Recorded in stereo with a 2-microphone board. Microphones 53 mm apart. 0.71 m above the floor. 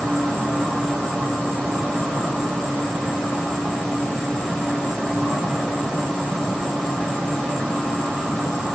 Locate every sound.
0.0 s an insect: 15° left (ahead or behind), 5 m